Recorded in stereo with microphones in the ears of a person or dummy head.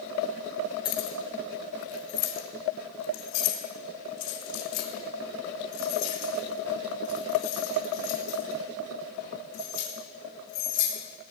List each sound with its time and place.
0.8 s keys jangling: 25° left (ahead or behind), 1.3 m; by 11.3 s 70° left (ahead or behind), 6.5 m